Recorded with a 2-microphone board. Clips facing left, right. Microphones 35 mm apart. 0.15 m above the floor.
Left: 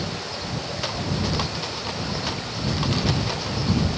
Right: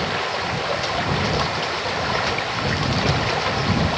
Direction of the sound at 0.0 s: 60° right (ahead or behind).